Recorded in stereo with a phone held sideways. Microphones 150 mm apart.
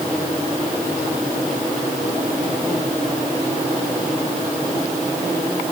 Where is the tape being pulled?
I don't hear tape being pulled.